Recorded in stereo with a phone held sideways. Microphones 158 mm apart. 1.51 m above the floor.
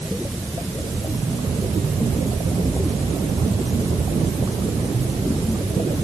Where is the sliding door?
No sliding door in this recording.